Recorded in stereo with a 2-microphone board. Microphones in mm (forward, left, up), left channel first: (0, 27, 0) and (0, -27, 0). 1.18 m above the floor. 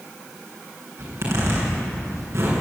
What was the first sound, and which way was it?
A zipper, 60° right (ahead or behind).